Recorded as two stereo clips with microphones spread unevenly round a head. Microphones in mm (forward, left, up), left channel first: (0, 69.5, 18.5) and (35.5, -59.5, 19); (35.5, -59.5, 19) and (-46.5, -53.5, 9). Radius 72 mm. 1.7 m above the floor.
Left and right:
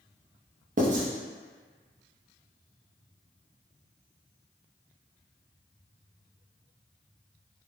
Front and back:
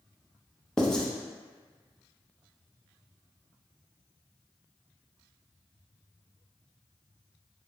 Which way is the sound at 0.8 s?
80° right.